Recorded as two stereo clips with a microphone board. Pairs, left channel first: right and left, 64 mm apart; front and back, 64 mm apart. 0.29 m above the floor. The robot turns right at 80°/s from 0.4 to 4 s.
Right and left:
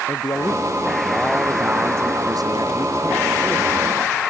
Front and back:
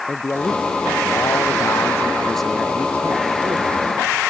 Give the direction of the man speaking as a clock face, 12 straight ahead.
2 o'clock.